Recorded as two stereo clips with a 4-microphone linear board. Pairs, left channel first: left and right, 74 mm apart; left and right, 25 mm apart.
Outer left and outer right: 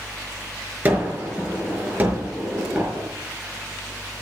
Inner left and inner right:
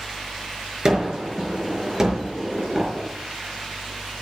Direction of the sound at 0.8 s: 25° right (ahead or behind).